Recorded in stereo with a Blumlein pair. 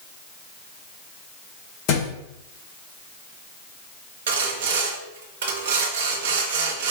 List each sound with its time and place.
1.9 s a thud: 40° left, 1.9 m
4.3 s sawing: 50° right, 1.1 m